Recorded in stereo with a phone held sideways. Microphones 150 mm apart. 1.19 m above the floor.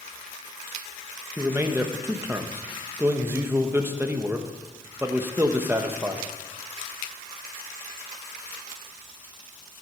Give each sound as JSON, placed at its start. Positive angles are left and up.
{"t": 1.4, "sound": "a man speaking", "side_deg": -15, "distance_m": 1.1}